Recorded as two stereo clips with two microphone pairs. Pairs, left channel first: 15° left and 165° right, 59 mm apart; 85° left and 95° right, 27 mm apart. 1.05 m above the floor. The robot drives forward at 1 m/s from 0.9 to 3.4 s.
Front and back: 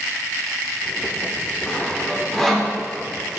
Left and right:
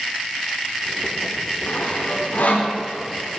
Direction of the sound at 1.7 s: 85° left.